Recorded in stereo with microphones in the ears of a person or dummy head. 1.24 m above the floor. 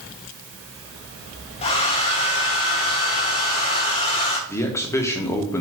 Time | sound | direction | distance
1.6 | a hair dryer | 35° left (ahead or behind) | 1.3 m
4.5 | a man speaking | 20° left (ahead or behind) | 1.2 m